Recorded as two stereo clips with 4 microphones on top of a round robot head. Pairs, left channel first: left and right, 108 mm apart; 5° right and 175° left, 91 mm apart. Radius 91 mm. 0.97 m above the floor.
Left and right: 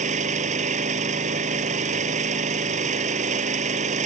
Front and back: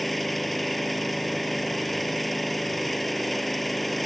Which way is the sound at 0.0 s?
90° right.